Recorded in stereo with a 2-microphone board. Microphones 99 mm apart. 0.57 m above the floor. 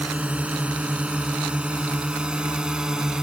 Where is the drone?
15° right (ahead or behind); by 3.2 s 5° right (ahead or behind).